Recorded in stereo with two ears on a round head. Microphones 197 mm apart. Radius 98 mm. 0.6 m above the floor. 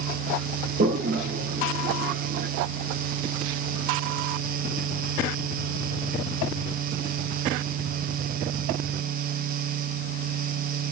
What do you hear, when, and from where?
0.8 s a toilet flushing: 40° right (ahead or behind), 0.7 m